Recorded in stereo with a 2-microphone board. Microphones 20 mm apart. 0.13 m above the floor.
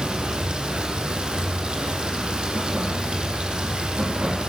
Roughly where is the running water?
Right.